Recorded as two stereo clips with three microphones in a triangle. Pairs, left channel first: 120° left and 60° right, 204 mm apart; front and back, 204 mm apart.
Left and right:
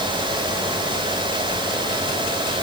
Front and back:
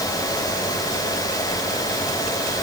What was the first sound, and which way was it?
Only background noise.